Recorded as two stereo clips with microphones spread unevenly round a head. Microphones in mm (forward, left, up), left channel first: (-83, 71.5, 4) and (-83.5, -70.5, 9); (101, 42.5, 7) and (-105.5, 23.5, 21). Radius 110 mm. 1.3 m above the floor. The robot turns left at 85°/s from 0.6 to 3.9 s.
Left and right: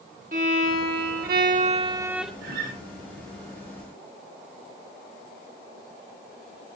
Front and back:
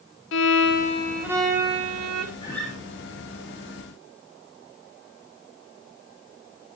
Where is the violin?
35° right, 2 m; by 2.3 s straight behind, 2 m.